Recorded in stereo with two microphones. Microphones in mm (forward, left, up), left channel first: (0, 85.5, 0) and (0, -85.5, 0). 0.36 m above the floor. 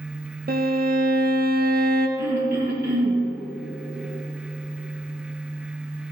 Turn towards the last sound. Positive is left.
turn(degrees=-65)  # may be behind; listen again after turning